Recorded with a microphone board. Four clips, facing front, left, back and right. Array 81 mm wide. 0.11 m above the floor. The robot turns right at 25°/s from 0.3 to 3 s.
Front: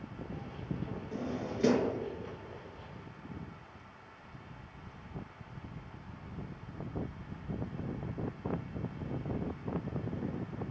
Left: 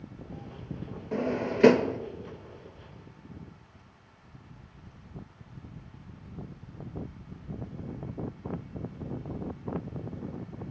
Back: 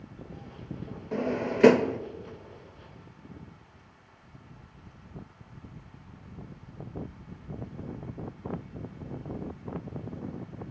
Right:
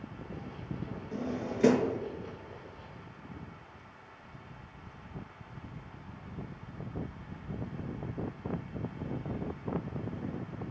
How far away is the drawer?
About 0.6 m.